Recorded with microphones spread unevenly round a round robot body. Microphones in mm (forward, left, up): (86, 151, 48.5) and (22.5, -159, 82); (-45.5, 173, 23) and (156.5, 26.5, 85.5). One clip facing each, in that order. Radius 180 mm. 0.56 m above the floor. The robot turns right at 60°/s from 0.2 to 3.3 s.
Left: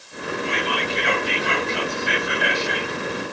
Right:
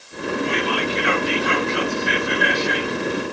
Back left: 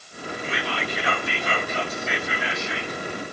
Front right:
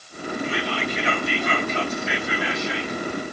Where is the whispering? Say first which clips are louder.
Right 4 dB, front right 3 dB; 140° left, 10 m; by 3.0 s 65° right, 10 m.